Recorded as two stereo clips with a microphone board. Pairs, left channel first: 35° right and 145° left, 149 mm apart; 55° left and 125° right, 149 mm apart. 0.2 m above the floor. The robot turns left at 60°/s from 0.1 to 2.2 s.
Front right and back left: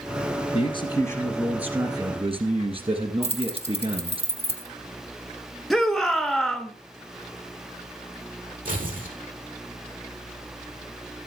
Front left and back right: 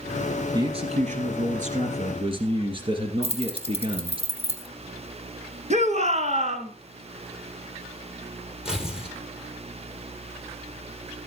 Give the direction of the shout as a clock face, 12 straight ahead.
4 o'clock.